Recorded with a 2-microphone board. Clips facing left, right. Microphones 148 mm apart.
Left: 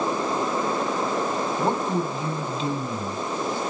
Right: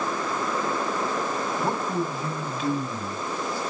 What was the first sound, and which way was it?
A man speaking, 25° left (ahead or behind).